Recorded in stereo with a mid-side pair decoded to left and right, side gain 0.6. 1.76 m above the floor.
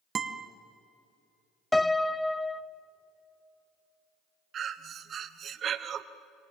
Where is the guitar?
35° right, 2.0 m.